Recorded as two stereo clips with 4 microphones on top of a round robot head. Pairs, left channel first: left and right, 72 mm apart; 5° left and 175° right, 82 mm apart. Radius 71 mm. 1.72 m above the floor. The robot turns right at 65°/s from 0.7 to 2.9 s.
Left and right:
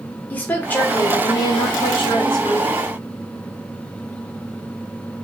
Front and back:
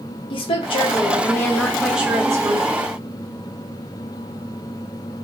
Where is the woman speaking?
20° left, 1.1 m; by 2.9 s 165° left, 1.1 m.